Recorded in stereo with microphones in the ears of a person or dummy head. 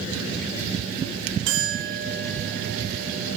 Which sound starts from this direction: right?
A clink, at 1.5 s.